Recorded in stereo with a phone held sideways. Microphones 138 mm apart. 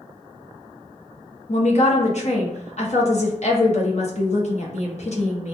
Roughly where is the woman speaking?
Left.